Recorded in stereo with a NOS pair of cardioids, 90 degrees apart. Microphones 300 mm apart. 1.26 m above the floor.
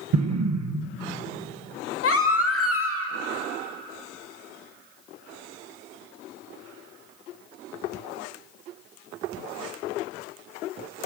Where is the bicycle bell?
No bicycle bell in this recording.